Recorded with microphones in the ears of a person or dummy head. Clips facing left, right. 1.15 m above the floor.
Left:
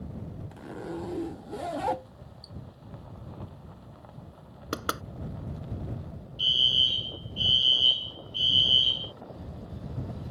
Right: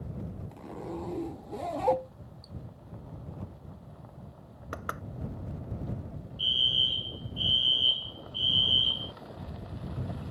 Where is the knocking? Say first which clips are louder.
Left 6 dB; 60° left (ahead or behind).